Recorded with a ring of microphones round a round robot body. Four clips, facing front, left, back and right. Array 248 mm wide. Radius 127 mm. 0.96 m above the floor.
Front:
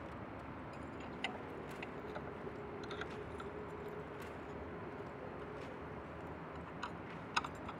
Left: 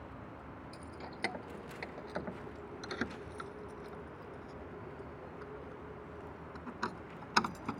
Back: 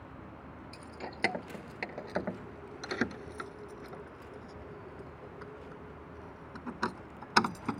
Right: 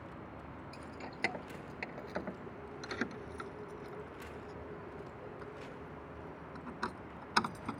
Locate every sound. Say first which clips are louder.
0.7 s keys jangling: right 1 dB, back 3 dB; 175° right; by 7.8 s 175° left